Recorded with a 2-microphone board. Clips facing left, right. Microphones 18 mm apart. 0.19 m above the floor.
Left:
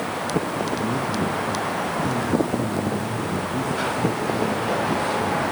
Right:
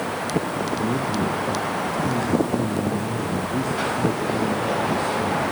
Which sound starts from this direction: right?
A man speaking, at 0.8 s.